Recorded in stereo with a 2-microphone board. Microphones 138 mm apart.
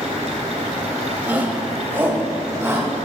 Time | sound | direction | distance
1.2 | a shout | 10° right (ahead or behind) | 2.5 m